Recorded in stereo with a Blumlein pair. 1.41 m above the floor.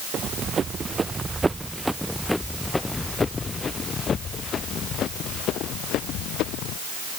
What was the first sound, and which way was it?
Running footsteps, 25° right.